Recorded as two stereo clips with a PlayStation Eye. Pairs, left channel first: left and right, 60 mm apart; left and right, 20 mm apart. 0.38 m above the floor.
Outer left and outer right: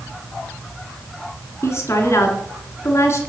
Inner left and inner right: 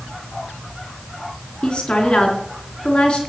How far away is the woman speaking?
About 3.5 m.